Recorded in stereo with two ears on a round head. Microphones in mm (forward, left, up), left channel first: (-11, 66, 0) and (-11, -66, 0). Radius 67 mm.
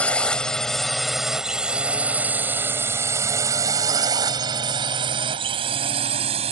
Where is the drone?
10° left (ahead or behind); by 6.5 s 40° right (ahead or behind).